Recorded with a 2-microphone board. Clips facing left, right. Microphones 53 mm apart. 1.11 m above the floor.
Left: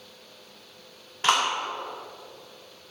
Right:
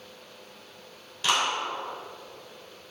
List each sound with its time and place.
1.2 s a clap: 40° left (ahead or behind), 3 m